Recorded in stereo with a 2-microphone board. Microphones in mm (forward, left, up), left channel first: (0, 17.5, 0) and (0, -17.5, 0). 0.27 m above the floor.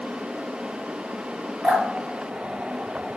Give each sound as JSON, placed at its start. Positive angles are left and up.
{"t": 1.6, "sound": "dripping", "side_deg": -50, "distance_m": 2.0}